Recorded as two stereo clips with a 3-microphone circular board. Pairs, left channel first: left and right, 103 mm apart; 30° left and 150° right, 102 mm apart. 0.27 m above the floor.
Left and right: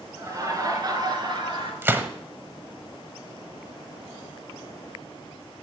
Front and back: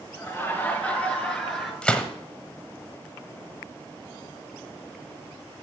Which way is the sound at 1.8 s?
40° right.